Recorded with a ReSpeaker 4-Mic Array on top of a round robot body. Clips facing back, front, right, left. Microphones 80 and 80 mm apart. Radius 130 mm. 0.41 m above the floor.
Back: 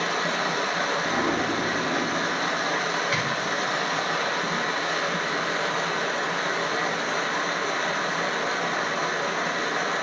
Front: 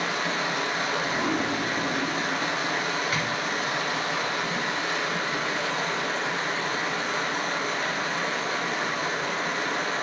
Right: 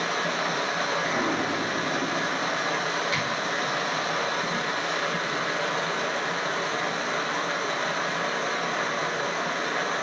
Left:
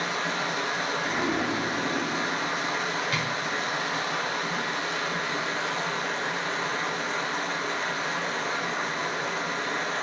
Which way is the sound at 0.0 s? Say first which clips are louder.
Back 2 dB, right 2 dB; 130° right.